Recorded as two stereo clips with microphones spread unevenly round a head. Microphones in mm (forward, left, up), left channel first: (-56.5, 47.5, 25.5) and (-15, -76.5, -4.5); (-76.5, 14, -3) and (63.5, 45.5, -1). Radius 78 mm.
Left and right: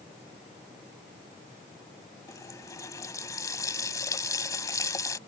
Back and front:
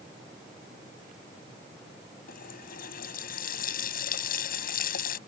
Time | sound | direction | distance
2.3 | a running tap | 170° left | ?